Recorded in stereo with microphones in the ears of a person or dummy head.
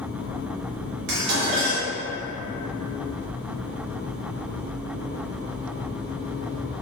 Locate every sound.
1.1 s dishes clattering: 60° right (ahead or behind), 0.9 m